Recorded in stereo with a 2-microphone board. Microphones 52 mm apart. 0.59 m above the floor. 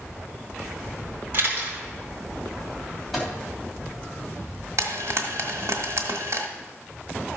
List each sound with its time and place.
1.3 s a camera shutter: 40° right (ahead or behind), 3.5 m
3.1 s a microwave: centre (ahead or behind), 3 m
4.8 s frying: 70° right (ahead or behind), 1.5 m